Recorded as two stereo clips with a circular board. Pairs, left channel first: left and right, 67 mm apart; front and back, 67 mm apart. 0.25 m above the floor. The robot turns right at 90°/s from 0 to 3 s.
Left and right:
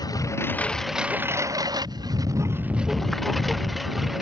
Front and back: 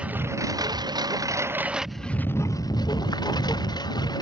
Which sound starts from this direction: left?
A lawn mower, at 0.0 s.